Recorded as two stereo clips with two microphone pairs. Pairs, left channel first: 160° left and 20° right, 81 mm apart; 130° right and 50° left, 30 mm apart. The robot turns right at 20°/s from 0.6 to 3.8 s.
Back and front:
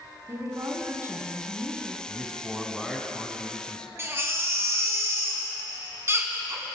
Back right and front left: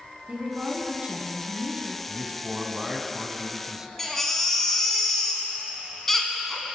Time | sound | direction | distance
0.3 | a woman speaking | 20° left | 1.8 m
2.1 | a man speaking | 60° left | 1.2 m
4.0 | a baby crying | 60° right | 1.4 m